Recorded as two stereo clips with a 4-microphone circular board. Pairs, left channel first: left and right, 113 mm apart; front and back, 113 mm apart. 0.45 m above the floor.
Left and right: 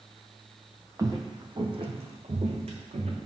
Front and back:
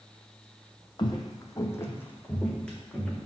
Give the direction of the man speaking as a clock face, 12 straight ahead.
I don't hear a man speaking.